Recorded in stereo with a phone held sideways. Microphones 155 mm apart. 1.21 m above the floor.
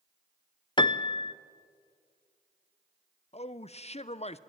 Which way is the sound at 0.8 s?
30° left (ahead or behind).